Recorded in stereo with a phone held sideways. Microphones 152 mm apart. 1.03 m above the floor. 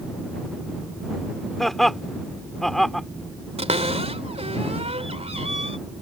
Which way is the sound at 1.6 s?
Centre (ahead or behind).